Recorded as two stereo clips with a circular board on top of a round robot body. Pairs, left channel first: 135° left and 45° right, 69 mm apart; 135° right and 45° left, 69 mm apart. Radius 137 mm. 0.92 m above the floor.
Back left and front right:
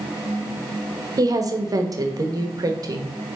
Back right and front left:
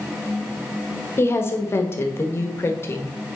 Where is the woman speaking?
80° right, 1.0 m.